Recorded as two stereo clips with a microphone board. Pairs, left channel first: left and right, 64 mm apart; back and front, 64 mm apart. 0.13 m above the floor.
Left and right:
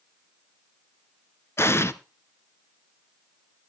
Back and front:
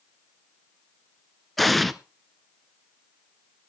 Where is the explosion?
95° left, 0.8 m.